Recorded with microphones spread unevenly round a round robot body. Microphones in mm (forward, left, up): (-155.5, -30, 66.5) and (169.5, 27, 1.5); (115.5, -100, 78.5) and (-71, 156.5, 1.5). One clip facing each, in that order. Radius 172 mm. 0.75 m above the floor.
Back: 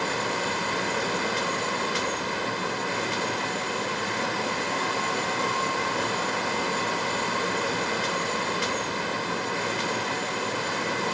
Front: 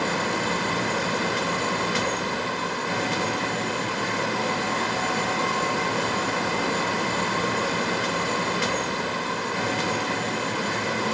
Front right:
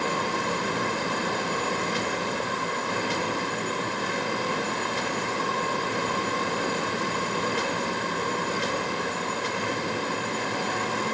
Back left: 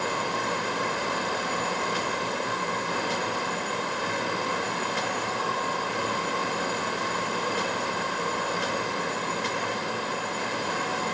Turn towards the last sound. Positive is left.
No sound to turn to.